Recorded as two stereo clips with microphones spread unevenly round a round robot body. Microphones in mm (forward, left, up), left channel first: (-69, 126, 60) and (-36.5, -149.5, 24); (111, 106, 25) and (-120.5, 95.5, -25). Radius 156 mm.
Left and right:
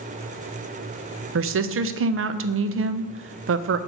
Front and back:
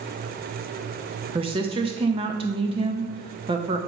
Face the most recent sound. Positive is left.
turn(degrees=-115)